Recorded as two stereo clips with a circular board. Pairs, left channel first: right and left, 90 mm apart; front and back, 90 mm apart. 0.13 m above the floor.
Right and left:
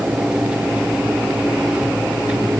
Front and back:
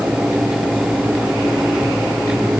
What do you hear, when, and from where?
Only background noise.